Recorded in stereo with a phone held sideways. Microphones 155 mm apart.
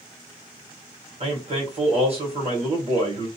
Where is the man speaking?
40° right (ahead or behind), 1.1 m.